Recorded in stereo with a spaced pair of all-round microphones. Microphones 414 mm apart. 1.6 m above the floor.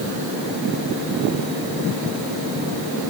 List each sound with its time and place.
Only background noise.